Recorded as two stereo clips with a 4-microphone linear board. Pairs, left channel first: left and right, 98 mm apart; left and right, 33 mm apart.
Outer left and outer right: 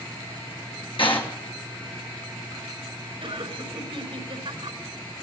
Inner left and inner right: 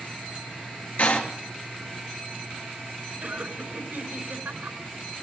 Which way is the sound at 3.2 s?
65° right (ahead or behind).